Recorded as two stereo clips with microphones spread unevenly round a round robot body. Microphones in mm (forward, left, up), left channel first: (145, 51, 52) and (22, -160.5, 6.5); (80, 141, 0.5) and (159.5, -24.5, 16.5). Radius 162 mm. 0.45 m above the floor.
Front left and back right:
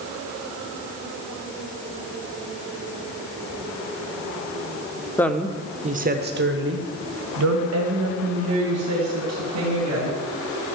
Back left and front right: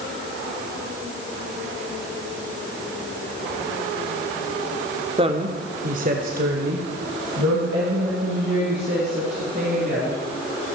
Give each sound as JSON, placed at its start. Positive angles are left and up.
{"t": 5.2, "sound": "a woman speaking", "azimuth_deg": -30, "distance_m": 0.7}